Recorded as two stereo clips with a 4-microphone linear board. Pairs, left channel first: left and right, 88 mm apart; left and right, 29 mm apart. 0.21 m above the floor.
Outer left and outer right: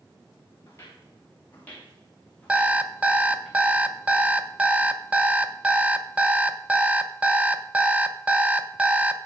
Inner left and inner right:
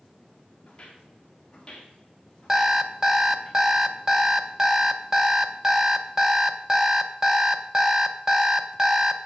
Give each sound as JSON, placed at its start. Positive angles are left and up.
{"t": 0.7, "sound": "footsteps", "side_deg": 30, "distance_m": 3.5}
{"t": 2.5, "sound": "an alarm clock", "side_deg": -15, "distance_m": 0.7}